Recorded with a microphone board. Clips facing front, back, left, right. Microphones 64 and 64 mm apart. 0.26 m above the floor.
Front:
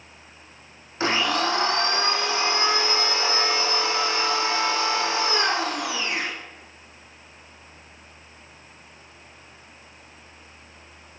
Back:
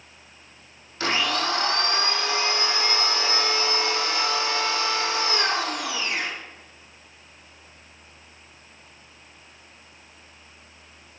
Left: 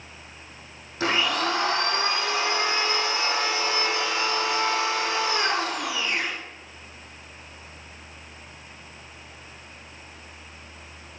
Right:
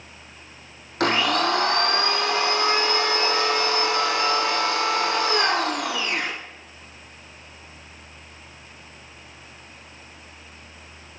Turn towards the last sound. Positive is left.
turn(degrees=-60)